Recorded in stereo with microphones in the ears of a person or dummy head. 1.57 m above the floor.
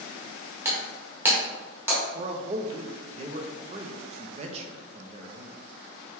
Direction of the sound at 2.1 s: 35° right (ahead or behind).